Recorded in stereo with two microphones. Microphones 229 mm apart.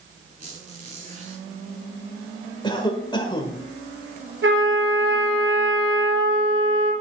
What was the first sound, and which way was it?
A squeak, 35° right (ahead or behind).